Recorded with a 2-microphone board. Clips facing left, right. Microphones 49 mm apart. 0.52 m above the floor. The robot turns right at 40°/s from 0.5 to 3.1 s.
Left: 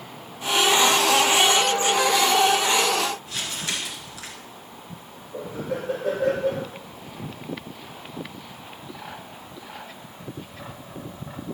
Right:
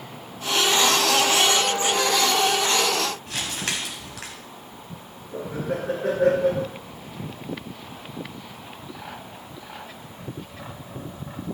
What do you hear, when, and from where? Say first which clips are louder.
3.3 s crumpling: right 1 dB; 75° right (ahead or behind), 2.5 m
5.3 s laughter: right 2 dB; 80° right, 5 m